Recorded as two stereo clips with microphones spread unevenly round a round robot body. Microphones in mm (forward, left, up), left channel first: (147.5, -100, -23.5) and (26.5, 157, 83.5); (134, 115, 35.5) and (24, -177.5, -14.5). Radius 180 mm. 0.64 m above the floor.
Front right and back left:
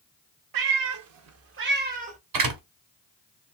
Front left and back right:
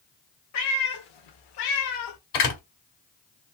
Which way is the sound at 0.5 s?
120° left.